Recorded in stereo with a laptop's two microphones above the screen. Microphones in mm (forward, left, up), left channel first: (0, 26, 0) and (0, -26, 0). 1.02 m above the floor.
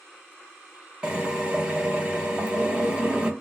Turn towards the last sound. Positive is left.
turn(degrees=-20)  # may be behind; listen again after turning